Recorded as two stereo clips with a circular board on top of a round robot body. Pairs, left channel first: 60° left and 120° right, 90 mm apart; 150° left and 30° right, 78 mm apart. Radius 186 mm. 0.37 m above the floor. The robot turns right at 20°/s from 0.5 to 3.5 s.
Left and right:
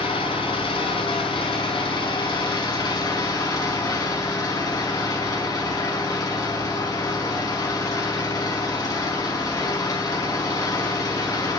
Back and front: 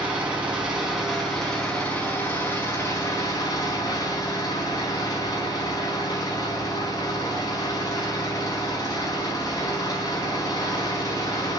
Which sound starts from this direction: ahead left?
An engine running, at 0.0 s.